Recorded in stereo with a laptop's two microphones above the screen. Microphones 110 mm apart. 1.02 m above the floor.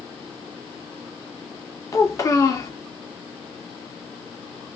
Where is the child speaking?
30° left (ahead or behind), 0.8 m.